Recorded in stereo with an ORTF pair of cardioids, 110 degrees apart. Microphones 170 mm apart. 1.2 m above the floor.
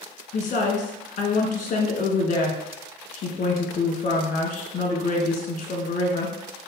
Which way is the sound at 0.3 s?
50° left.